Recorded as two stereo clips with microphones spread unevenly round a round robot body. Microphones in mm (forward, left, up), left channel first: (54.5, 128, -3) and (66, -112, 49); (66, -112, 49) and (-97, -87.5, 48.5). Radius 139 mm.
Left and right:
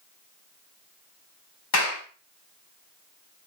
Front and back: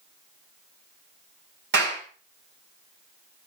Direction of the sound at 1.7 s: 135° left.